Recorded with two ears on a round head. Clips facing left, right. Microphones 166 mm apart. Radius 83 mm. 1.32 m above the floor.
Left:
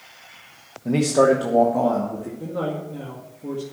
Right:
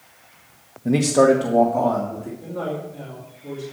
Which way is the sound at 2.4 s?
65° left (ahead or behind).